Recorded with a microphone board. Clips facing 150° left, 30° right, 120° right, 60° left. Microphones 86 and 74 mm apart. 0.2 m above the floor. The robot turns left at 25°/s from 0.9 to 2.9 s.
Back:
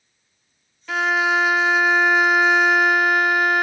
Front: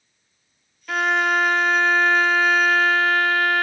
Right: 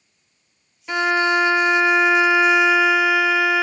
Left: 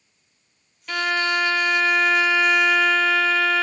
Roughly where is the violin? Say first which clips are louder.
Even, right 4 dB; behind right.